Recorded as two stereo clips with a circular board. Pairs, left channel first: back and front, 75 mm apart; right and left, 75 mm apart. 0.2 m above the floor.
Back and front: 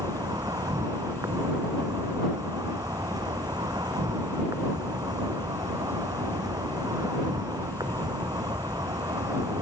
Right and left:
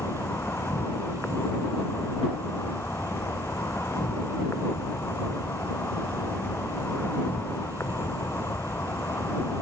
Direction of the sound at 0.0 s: 30° right.